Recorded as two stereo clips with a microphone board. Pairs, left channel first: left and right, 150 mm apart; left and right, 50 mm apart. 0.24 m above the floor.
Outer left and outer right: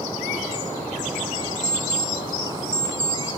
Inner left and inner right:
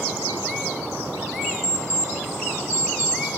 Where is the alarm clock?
10° right (ahead or behind), 1.9 m.